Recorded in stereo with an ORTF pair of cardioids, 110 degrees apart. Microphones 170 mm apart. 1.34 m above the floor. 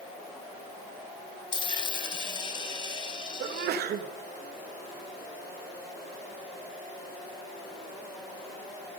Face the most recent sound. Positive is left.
turn(degrees=-65)